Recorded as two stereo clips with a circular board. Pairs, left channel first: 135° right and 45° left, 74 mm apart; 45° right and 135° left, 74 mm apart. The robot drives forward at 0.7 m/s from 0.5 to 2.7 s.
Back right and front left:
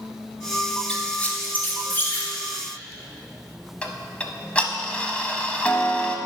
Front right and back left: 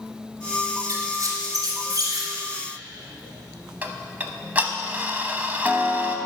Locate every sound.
0.9 s a squeak: 150° left, 1.3 m; by 2.3 s 165° left, 2 m
3.8 s ticking: 170° left, 0.8 m